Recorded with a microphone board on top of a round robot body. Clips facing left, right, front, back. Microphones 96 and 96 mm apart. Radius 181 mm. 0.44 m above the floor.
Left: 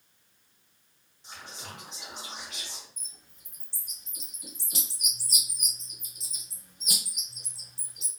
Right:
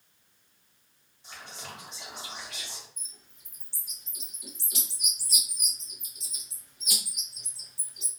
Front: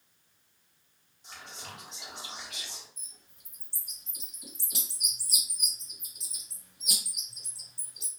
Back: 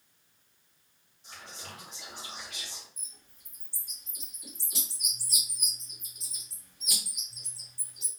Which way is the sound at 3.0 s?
30° left.